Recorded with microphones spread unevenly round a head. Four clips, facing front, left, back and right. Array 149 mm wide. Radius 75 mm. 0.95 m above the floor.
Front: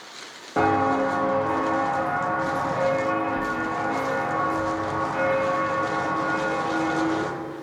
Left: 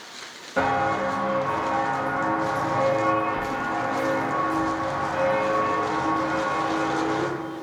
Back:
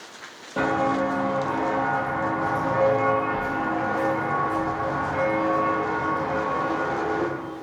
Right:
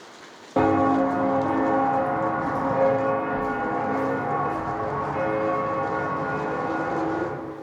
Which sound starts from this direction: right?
Footsteps, at 0.6 s.